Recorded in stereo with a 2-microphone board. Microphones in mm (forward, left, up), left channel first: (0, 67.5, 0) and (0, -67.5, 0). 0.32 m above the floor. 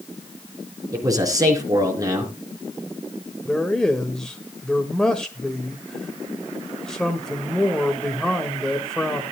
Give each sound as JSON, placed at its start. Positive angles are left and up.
{"t": 0.9, "sound": "a man speaking", "side_deg": -25, "distance_m": 4.0}
{"t": 3.5, "sound": "a man speaking", "side_deg": 5, "distance_m": 1.5}